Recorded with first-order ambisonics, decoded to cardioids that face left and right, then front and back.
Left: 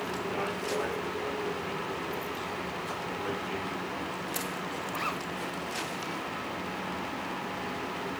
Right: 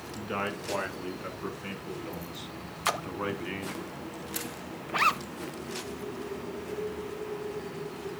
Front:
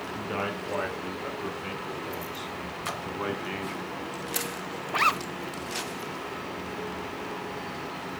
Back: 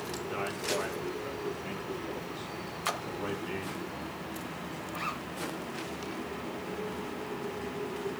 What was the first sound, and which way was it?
A man speaking, 50° right.